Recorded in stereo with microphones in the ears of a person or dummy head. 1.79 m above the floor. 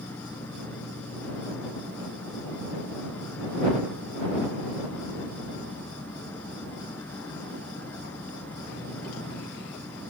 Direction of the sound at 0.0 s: 10° left (ahead or behind).